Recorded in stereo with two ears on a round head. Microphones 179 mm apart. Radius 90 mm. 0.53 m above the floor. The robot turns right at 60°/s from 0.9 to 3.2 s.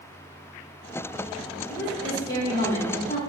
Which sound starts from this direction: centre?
A woman speaking, at 1.7 s.